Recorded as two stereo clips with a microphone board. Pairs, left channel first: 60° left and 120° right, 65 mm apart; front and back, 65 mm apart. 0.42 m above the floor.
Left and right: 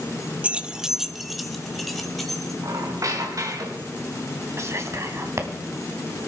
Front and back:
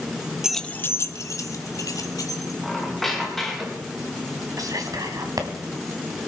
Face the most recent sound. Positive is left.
turn(degrees=-160)